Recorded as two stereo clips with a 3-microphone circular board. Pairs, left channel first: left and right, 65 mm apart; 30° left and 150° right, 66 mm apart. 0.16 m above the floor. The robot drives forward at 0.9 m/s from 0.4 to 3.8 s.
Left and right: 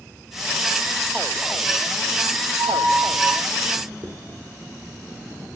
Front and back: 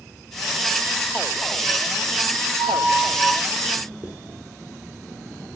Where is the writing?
95° right, 2.5 m.